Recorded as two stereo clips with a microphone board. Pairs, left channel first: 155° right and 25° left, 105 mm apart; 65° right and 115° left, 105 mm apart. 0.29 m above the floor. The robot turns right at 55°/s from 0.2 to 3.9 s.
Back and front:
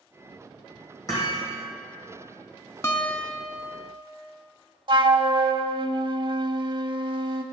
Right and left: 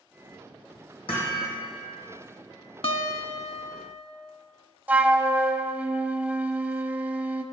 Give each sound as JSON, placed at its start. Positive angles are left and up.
{"t": 1.1, "sound": "hammering", "azimuth_deg": -100, "distance_m": 3.5}
{"t": 2.8, "sound": "a guitar", "azimuth_deg": -95, "distance_m": 0.5}
{"t": 4.9, "sound": "a flute", "azimuth_deg": 45, "distance_m": 0.5}